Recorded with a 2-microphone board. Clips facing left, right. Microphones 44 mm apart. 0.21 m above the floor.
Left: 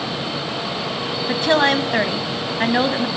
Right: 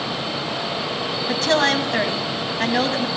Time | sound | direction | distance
1.3 | a woman speaking | 15° left (ahead or behind) | 1.1 m